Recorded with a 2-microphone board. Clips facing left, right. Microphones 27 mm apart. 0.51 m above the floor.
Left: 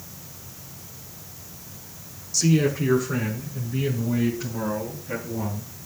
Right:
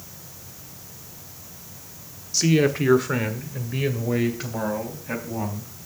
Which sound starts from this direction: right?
A man speaking, at 2.3 s.